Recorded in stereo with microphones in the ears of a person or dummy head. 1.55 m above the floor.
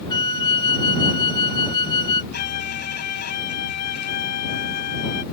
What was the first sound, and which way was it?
A flute, 30° left (ahead or behind).